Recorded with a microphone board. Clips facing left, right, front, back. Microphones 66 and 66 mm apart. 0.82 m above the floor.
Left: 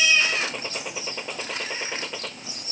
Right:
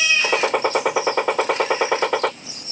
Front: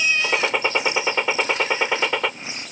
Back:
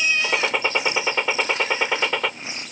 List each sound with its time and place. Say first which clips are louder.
0.2 s a gunshot: right 10 dB, front 1 dB; 85° right